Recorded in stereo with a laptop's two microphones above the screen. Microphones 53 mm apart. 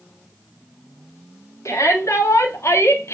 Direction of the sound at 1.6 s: 65° left (ahead or behind).